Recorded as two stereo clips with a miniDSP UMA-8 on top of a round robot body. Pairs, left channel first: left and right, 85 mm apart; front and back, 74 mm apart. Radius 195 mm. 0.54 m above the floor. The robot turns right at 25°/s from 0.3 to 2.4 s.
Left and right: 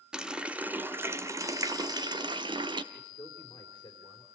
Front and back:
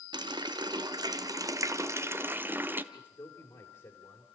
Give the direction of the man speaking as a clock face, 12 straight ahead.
11 o'clock.